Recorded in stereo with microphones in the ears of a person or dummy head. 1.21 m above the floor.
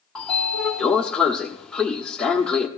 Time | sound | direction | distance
0.1 | a sliding door | centre (ahead or behind) | 1.3 m